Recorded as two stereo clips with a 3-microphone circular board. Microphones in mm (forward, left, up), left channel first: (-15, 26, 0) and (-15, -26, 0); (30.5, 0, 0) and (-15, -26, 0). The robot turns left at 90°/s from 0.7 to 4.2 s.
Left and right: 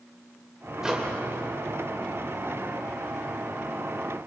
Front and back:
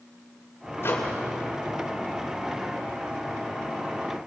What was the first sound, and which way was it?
A microwave, 10° right.